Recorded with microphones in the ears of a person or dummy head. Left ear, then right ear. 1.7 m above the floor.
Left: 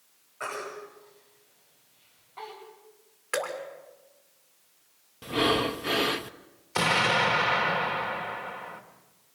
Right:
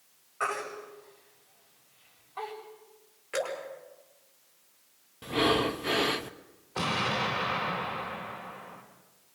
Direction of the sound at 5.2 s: 5° left (ahead or behind).